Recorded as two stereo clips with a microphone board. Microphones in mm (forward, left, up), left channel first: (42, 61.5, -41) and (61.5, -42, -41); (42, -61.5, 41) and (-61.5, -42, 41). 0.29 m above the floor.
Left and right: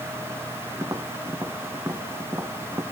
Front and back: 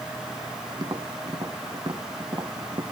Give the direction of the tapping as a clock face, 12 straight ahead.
5 o'clock.